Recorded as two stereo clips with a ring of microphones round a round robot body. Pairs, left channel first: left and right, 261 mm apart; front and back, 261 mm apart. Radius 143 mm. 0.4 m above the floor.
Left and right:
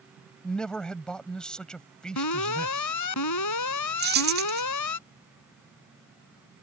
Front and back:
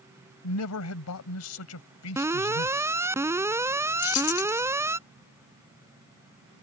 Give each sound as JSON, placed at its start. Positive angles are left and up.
{"t": 0.4, "sound": "a man speaking", "azimuth_deg": 5}
{"t": 2.2, "sound": "an alarm", "azimuth_deg": 100}
{"t": 4.0, "sound": "keys jangling", "azimuth_deg": -40}